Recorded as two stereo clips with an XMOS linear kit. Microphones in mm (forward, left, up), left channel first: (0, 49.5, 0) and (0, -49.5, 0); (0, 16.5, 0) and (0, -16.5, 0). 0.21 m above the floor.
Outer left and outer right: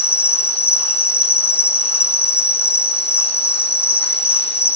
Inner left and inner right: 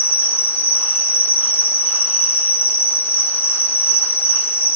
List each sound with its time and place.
0.0 s an insect: 80° left, 3.5 m